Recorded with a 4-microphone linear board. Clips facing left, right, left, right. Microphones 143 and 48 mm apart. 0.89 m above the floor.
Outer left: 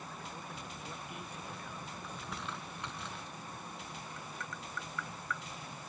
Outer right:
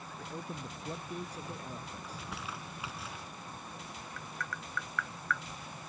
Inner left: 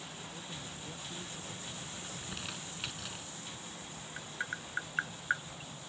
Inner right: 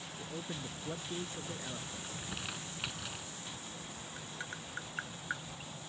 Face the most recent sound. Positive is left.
turn(degrees=25)  # may be behind; listen again after turning